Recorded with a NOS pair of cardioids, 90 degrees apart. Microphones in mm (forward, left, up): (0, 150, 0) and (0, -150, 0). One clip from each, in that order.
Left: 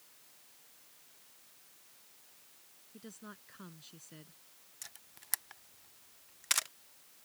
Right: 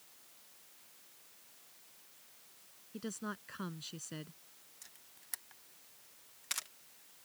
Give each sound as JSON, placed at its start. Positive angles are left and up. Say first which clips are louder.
{"t": 2.9, "sound": "a woman speaking", "louder": "right 9 dB", "azimuth_deg": -60}
{"t": 4.8, "sound": "a camera shutter", "louder": "left 8 dB", "azimuth_deg": 40}